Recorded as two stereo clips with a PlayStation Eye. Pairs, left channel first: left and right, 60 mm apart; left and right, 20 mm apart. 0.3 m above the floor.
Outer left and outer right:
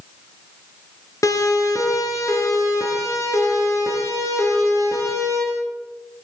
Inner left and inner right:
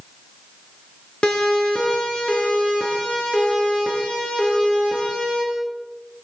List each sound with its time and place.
1.2 s a siren: 60° left (ahead or behind), 5.5 m; by 5.4 s 55° left (ahead or behind), 9 m